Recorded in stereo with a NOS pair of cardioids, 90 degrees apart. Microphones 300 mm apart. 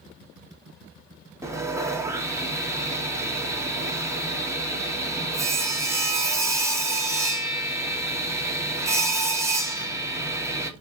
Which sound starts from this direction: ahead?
Sawing, at 1.4 s.